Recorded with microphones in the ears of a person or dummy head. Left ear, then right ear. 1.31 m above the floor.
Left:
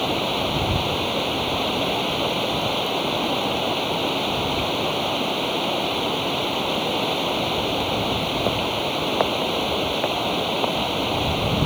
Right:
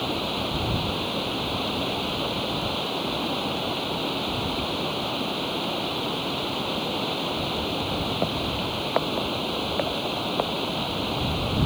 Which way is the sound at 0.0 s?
15° left (ahead or behind).